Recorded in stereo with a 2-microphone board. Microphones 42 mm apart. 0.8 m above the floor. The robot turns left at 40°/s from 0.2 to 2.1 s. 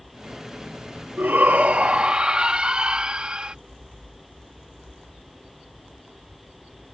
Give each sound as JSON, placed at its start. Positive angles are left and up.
{"t": 1.2, "sound": "a shout", "azimuth_deg": -115}